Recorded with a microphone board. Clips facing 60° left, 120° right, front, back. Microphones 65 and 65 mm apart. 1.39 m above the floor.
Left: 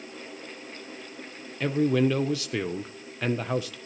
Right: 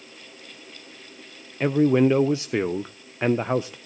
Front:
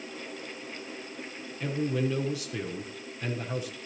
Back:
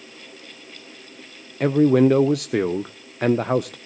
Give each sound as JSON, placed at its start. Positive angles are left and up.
{"t": 1.6, "sound": "a man speaking", "azimuth_deg": 175, "distance_m": 0.5}